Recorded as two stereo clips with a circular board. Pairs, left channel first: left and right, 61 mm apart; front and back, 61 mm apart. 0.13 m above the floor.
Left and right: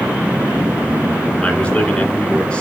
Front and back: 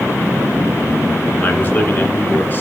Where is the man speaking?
30° left, 2 m.